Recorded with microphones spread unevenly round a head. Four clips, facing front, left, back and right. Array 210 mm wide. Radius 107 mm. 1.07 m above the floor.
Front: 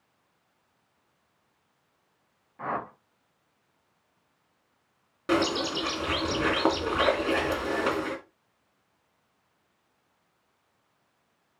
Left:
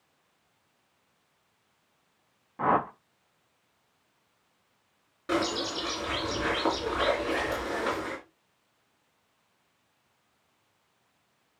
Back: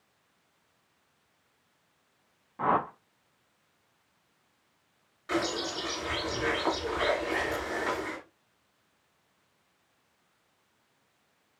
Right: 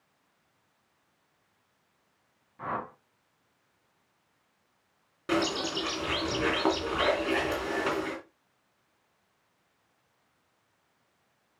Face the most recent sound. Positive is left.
turn(degrees=-20)